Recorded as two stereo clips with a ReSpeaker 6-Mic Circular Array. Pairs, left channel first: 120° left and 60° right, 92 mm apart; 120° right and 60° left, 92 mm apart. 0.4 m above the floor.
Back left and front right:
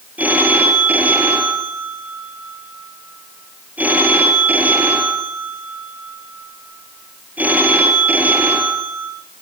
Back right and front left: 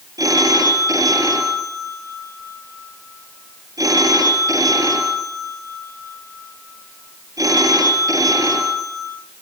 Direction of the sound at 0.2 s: 10° left.